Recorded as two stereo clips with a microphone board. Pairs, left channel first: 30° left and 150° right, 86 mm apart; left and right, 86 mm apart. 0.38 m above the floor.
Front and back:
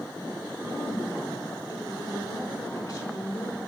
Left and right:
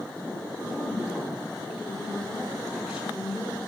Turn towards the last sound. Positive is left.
turn(degrees=-5)